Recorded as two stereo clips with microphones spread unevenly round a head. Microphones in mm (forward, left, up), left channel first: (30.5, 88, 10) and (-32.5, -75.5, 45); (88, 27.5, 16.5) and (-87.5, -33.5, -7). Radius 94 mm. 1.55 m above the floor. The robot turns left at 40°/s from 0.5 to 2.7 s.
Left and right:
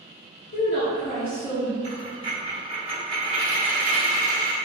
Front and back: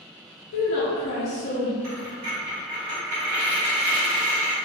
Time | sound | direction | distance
0.5 | a woman speaking | 20° left | 0.7 m
1.8 | a dropped coin | 140° right | 1.7 m